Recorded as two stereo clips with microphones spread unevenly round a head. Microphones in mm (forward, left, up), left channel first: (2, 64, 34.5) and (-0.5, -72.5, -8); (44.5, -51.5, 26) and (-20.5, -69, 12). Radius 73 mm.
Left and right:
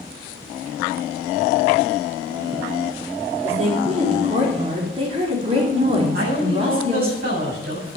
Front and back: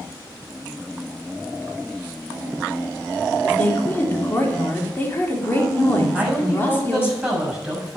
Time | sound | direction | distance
3.4 | a woman speaking | 45° right | 3.5 m
6.1 | a man speaking | 80° right | 6.5 m